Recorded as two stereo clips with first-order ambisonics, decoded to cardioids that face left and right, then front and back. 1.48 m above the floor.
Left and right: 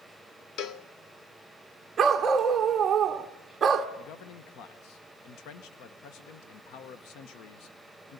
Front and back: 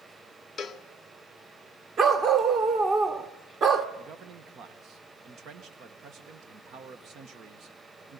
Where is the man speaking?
125° left, 1.2 m.